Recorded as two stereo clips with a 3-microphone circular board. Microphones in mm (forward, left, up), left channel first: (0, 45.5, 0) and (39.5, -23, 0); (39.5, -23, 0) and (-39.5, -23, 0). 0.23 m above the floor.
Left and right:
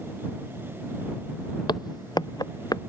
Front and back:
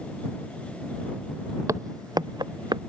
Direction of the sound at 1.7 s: 135° left.